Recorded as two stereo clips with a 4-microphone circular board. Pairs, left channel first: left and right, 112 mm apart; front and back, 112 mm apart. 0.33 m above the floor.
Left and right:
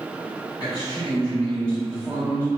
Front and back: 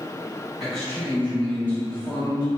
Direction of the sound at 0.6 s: 90° left.